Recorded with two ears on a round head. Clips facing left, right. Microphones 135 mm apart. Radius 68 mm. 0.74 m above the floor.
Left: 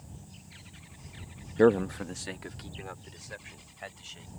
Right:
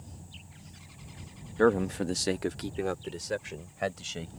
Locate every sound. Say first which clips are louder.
1.6 s a man speaking: left 2 dB; 20° left (ahead or behind); by 4.3 s 75° right (ahead or behind)